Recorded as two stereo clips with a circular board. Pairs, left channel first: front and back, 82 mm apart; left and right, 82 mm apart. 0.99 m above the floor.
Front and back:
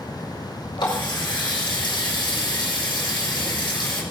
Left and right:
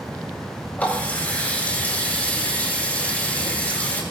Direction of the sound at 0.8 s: 20° left.